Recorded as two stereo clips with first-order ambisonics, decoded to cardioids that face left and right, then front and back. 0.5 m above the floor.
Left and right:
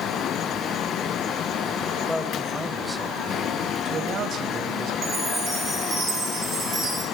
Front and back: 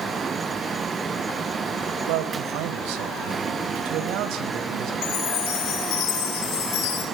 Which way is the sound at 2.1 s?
175° left.